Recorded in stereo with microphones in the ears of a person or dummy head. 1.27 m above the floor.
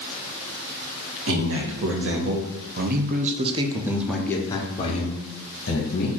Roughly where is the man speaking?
Right.